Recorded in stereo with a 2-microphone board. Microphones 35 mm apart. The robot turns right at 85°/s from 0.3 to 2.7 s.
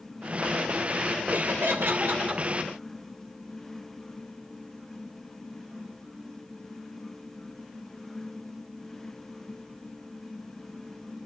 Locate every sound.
1.3 s laughter: 125° right, 3.5 m; by 2.4 s 30° right, 3.5 m